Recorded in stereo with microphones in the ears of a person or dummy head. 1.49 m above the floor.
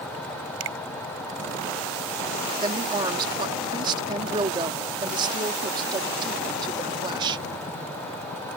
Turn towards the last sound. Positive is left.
turn(degrees=-25)  # may be behind; listen again after turning